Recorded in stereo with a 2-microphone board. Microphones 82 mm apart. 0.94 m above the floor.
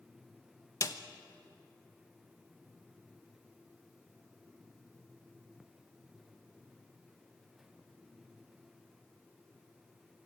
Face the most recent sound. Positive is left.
turn(degrees=45)  # may be behind; listen again after turning